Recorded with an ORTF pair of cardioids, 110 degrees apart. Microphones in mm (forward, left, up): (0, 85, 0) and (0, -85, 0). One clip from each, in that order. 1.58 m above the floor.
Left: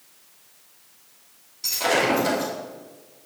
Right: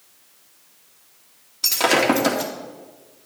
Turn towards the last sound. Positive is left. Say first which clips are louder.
# right 3 dB
turn(degrees=-65)